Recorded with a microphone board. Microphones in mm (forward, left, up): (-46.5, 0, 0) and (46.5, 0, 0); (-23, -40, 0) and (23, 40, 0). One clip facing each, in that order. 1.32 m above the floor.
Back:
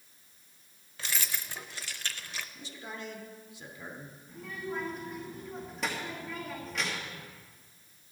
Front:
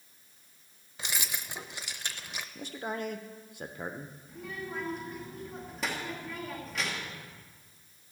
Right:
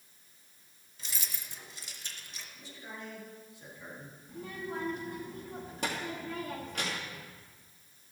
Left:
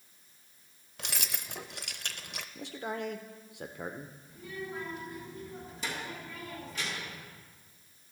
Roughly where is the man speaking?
Ahead left.